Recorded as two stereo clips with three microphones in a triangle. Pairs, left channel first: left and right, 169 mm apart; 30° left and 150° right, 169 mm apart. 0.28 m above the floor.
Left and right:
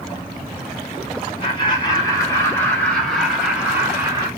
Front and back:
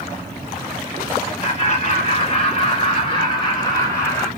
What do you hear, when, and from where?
1.4 s laughter: 45° left, 1.8 m; by 4.3 s 35° right, 1.4 m